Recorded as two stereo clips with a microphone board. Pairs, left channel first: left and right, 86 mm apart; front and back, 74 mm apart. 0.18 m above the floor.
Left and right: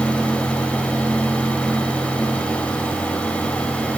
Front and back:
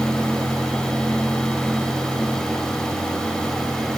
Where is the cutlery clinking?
No cutlery clinking in this recording.